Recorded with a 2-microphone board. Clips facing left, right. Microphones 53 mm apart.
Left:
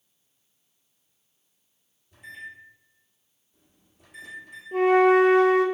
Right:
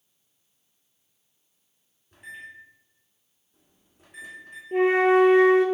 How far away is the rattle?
I don't hear a rattle.